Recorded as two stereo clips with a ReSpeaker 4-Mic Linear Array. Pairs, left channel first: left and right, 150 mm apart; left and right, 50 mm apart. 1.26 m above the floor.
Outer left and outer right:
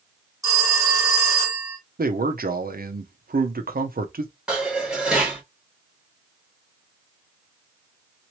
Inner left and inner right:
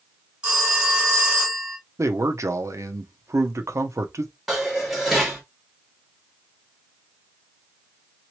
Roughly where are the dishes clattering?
Centre.